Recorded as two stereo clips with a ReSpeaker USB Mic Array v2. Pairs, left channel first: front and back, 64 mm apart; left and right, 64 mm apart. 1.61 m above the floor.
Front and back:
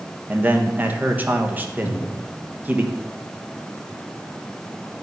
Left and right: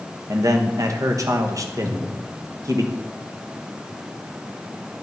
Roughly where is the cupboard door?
Ahead right.